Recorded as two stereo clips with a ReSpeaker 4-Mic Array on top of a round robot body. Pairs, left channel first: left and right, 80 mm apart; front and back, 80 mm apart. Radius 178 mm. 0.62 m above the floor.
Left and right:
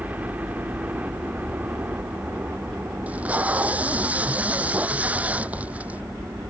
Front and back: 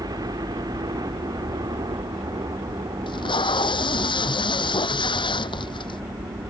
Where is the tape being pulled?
15° right.